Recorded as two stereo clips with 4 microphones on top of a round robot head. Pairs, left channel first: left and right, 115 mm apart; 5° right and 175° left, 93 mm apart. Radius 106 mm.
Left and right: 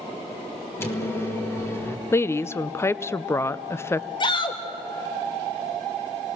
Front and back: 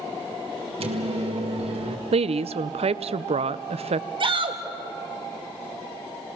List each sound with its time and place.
0.8 s a microwave: 160° left, 2 m
2.1 s a woman speaking: 160° left, 0.6 m
4.2 s a shout: 140° left, 2 m